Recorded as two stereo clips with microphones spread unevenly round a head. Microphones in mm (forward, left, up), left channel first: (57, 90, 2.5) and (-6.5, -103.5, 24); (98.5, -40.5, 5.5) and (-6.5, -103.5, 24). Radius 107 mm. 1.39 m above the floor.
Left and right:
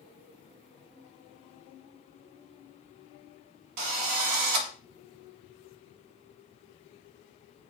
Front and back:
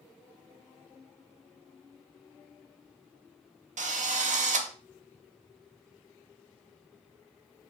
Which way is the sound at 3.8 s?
125° right.